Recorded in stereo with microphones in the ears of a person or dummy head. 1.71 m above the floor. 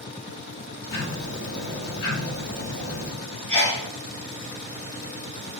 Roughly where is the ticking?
Left.